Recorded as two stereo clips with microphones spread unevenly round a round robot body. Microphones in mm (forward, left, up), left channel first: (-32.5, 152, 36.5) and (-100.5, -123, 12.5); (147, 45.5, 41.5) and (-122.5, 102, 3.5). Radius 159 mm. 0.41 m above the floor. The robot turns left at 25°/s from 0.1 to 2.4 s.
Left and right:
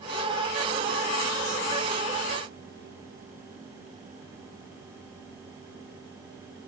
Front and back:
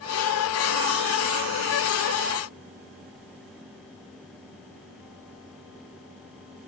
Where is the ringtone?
I don't hear a ringtone.